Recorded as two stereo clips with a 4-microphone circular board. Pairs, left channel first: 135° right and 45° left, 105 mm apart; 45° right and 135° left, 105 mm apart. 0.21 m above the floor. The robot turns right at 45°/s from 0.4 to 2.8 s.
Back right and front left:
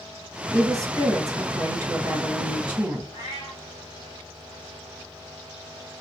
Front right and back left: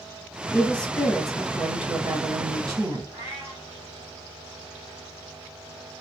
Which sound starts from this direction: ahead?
A woman speaking, at 0.5 s.